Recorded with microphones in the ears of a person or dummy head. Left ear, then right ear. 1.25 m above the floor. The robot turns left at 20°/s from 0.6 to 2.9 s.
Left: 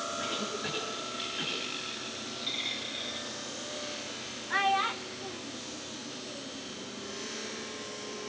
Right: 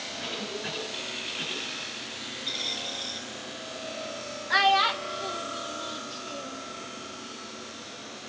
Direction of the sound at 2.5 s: 10° left (ahead or behind).